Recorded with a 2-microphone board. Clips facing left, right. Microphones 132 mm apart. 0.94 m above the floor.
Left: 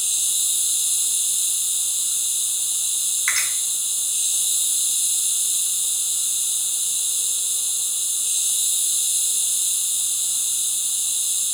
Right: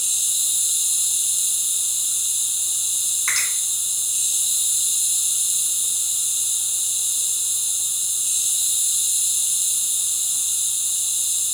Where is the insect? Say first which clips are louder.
Even; 35° right (ahead or behind), 1.8 m.